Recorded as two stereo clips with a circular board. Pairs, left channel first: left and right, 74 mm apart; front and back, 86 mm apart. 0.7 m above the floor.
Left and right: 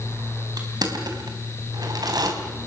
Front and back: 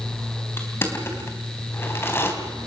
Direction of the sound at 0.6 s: 60° right.